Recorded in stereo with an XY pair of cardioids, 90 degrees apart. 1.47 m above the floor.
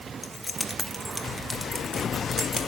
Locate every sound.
0.2 s keys jangling: 20° left, 1.0 m; by 2.7 s 15° right, 3 m